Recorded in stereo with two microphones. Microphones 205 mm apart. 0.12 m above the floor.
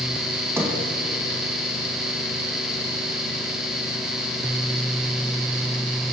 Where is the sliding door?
10° right (ahead or behind), 5.5 m.